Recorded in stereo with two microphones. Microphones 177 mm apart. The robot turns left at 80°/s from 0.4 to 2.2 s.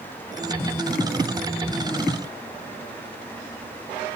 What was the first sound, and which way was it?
Only background noise.